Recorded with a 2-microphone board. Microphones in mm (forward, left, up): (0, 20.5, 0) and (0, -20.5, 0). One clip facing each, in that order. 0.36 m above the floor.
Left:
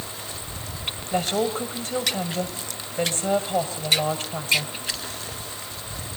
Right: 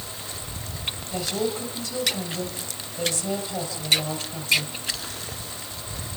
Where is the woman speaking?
45° left (ahead or behind), 2 m.